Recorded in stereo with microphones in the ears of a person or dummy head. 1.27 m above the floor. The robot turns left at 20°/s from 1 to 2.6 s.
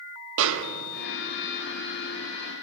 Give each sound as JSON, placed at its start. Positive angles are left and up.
{"t": 0.4, "sound": "a snare drum", "side_deg": -65, "distance_m": 1.0}